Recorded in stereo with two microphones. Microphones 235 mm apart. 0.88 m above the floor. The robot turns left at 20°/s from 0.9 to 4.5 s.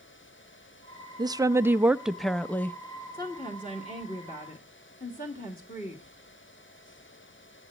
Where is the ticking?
I don't hear ticking.